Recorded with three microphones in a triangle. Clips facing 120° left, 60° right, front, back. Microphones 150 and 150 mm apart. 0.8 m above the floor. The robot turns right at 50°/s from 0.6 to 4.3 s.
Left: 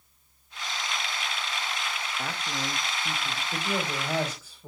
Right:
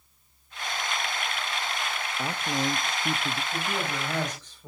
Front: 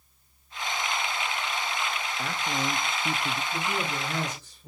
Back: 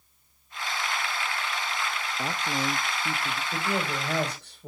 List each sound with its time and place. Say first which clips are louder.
2.2 s a man speaking: right 6 dB, back 1 dB; 125° right, 0.7 m; by 3.4 s 65° right, 0.7 m
3.5 s a man speaking: left 4 dB, back 1 dB; 165° left, 4 m; by 4.7 s 160° right, 4 m